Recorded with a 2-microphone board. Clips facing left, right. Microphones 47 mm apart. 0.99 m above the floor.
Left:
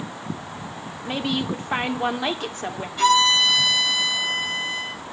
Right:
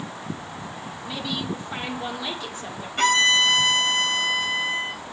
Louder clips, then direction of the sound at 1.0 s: Left 5 dB; 55° left (ahead or behind).